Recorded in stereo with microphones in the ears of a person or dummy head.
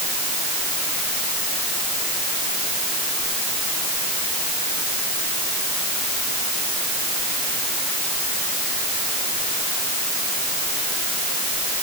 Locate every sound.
Only background noise.